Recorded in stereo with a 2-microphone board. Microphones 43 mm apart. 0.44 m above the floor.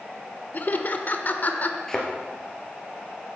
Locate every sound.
0.5 s laughter: 45° left (ahead or behind), 1.0 m
1.9 s a thud: 10° left (ahead or behind), 2.0 m